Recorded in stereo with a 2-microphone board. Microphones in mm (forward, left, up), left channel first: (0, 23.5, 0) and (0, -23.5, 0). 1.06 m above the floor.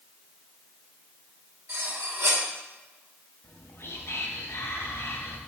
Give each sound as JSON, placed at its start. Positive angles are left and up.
{"t": 1.7, "sound": "cutlery clinking", "side_deg": -75, "distance_m": 2.0}
{"t": 3.4, "sound": "whispering", "side_deg": 65, "distance_m": 1.2}